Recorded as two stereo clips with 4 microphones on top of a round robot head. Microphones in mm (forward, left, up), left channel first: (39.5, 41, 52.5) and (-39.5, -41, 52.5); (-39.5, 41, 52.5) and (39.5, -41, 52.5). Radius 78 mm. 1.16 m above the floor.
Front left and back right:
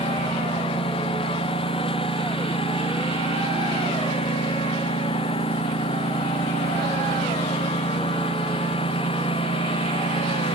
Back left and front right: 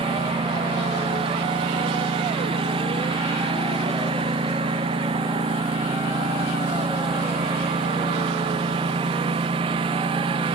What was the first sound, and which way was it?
A lawn mower, straight ahead.